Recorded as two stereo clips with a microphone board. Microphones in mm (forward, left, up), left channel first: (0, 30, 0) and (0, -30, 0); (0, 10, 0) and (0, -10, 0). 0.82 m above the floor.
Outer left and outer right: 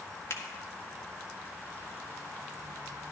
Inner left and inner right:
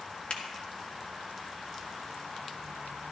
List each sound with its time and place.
0.3 s a finger snap: 50° left (ahead or behind), 1.8 m